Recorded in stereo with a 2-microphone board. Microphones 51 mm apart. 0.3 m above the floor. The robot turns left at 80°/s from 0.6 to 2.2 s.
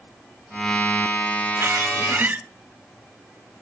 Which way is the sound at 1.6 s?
90° right.